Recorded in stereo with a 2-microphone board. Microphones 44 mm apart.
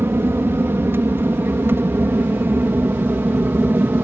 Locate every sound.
0.0 s an aircraft: 60° right (ahead or behind); by 4.0 s 50° right (ahead or behind)